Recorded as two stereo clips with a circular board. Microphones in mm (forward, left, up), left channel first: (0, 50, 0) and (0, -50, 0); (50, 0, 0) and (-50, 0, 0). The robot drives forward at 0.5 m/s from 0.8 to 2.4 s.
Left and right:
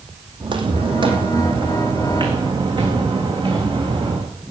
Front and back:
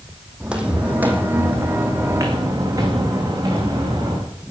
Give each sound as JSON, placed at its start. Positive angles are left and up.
{"t": 0.4, "sound": "footsteps", "azimuth_deg": -100, "distance_m": 2.5}